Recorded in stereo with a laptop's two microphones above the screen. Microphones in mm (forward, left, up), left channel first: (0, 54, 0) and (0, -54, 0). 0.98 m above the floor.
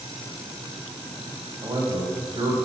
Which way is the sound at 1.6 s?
45° right (ahead or behind).